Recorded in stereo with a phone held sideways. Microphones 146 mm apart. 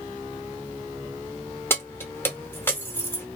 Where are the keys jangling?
15° left (ahead or behind), 0.7 m.